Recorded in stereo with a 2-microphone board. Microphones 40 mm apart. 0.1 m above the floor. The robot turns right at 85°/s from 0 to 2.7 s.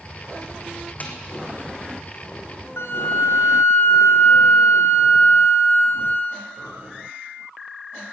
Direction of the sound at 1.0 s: 40° left (ahead or behind).